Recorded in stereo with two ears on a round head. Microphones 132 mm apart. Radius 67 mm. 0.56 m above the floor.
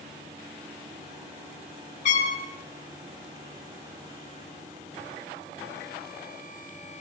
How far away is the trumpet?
About 5 m.